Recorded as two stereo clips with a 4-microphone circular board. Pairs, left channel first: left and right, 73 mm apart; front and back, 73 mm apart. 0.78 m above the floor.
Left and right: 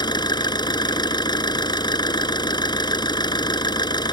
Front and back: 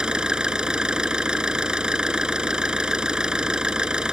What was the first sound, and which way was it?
An engine running, 100° left.